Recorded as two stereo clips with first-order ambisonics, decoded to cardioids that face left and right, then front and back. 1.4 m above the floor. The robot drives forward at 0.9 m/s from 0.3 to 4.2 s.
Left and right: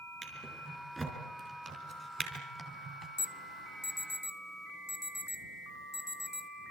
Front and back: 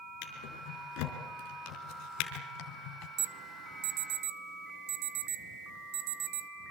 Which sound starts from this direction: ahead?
A drawer, at 0.2 s.